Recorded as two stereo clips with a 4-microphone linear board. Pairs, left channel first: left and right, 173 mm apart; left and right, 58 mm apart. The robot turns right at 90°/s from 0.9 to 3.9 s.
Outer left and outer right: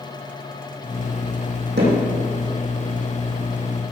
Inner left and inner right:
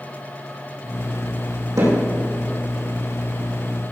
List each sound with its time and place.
1.8 s hammering: 80° right, 6 m; by 1.9 s 65° right (ahead or behind), 6 m